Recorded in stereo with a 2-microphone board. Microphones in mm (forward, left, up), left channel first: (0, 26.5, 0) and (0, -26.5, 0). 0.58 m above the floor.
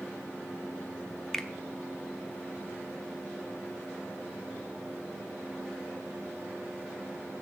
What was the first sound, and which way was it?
A finger snap, 5° left (ahead or behind).